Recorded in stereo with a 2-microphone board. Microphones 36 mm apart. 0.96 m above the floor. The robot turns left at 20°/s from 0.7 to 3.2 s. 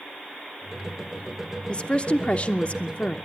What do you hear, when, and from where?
1.7 s a woman speaking: 30° left (ahead or behind), 0.7 m; by 3.2 s 35° left (ahead or behind), 0.7 m